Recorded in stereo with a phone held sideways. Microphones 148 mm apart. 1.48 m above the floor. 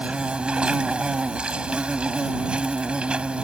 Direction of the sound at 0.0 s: 5° right (ahead or behind).